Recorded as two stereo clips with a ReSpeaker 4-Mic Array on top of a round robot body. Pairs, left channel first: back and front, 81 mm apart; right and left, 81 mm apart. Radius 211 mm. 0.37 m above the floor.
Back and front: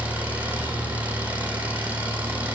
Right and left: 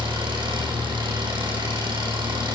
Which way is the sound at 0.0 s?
75° left.